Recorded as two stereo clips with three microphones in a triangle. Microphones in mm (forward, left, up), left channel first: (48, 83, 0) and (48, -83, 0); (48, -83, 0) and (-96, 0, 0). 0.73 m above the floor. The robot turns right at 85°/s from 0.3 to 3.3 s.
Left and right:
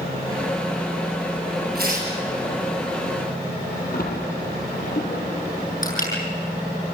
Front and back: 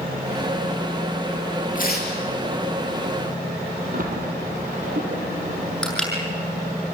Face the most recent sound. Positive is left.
turn(degrees=55)